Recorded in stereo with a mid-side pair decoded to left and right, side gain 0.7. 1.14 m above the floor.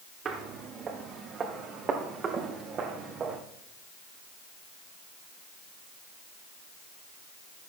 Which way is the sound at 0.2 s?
40° right.